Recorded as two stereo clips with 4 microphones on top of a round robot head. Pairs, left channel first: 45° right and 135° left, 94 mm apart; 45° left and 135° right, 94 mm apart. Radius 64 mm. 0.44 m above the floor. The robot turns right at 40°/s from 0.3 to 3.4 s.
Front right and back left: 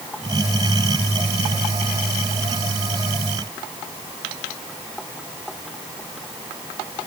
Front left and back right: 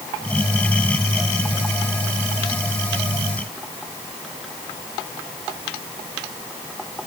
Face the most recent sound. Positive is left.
No sound to turn to.